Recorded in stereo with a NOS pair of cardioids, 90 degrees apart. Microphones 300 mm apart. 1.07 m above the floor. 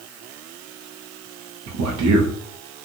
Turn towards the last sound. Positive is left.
turn(degrees=-70)